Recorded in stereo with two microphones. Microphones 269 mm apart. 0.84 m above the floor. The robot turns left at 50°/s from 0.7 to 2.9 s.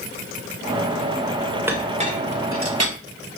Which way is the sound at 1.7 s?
10° right (ahead or behind).